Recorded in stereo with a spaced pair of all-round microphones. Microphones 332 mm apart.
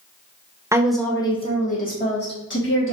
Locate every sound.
0.7 s a woman speaking: 10° right (ahead or behind), 0.7 m; by 2.9 s 40° left (ahead or behind), 1.7 m